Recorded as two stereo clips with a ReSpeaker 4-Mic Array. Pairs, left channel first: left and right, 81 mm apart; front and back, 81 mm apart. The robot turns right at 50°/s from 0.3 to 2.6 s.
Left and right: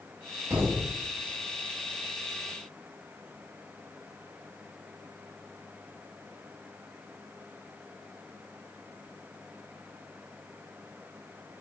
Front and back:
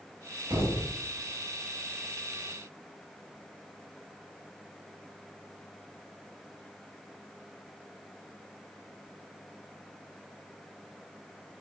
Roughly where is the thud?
Behind right.